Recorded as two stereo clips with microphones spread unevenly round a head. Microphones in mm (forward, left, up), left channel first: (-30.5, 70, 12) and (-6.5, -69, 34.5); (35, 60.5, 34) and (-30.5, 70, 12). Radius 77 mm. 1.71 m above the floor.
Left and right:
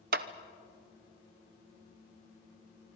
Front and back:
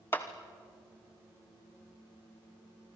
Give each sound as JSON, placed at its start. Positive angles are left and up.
{"t": 0.1, "sound": "a clap", "azimuth_deg": -70, "distance_m": 0.8}